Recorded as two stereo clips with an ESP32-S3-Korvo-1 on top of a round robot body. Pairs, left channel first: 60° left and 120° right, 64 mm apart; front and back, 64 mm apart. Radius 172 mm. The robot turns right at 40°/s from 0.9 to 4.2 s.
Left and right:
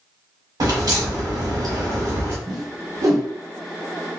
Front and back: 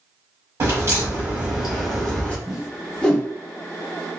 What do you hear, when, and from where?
0.6 s a crack: 130° right, 1.3 m; by 2.4 s 70° right, 1.3 m
2.5 s a whoosh: 100° right, 0.5 m; by 3.3 s 65° right, 0.5 m